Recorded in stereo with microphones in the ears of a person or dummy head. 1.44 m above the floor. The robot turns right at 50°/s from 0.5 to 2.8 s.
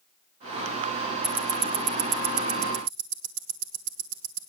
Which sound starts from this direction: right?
Ticking, at 1.2 s.